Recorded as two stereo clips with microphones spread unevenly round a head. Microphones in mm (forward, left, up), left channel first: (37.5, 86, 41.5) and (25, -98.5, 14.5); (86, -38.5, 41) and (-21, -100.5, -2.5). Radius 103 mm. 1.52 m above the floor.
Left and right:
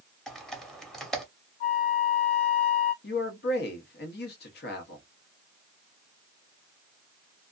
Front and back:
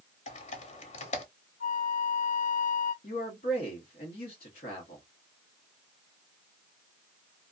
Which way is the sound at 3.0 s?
55° left.